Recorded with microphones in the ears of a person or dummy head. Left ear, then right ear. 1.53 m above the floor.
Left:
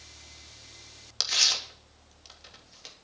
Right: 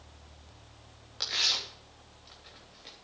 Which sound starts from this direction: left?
Tearing paper, at 1.2 s.